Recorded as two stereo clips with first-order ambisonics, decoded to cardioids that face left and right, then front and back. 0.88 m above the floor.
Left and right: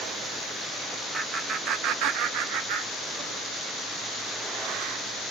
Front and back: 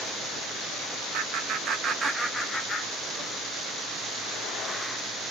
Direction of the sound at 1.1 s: 155° right.